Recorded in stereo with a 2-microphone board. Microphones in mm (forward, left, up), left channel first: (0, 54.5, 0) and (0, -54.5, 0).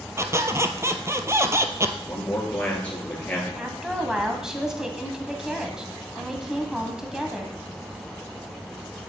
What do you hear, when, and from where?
0.2 s a squeak: 25° right (ahead or behind), 0.7 m
2.1 s a man speaking: 15° left (ahead or behind), 3.5 m
3.6 s a woman speaking: 5° right (ahead or behind), 1.4 m